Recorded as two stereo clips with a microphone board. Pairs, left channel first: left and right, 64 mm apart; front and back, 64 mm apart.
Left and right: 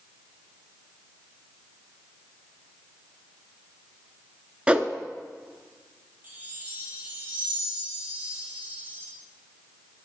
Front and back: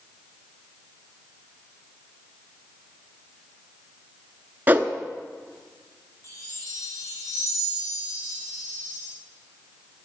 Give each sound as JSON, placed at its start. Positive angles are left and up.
{"t": 4.7, "sound": "a whoosh", "azimuth_deg": -150, "distance_m": 0.5}
{"t": 6.2, "sound": "a chime", "azimuth_deg": -30, "distance_m": 3.5}